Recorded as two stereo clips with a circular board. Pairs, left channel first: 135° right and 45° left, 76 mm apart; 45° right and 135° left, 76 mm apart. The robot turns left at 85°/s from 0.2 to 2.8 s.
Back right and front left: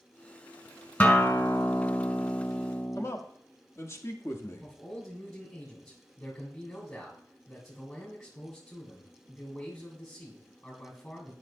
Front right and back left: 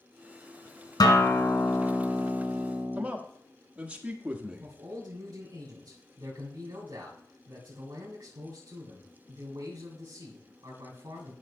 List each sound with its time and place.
1.0 s a guitar: 65° right, 1.5 m; by 3.0 s 145° left, 1.5 m
3.0 s a man speaking: 160° right, 1.2 m
4.6 s a man speaking: 160° left, 3 m